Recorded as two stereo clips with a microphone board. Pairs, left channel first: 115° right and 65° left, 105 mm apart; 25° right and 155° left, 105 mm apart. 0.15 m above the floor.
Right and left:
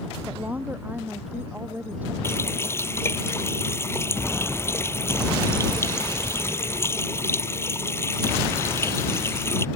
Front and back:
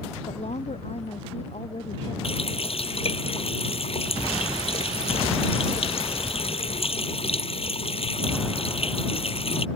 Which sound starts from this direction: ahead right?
A running tap, at 2.2 s.